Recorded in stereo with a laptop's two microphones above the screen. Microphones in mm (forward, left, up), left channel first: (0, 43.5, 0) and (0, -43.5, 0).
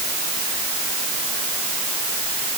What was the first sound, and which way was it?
Only background noise.